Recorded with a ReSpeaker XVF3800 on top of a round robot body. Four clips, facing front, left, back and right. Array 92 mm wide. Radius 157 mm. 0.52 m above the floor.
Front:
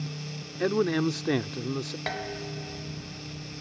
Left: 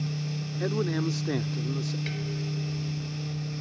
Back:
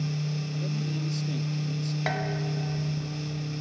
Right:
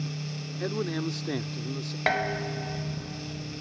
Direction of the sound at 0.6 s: 5° left.